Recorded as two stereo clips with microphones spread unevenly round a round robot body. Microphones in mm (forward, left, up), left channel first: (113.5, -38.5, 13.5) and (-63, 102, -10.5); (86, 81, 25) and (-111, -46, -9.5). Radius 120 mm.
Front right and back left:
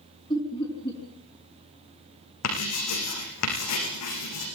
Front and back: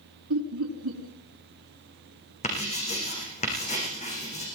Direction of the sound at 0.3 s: 115° right.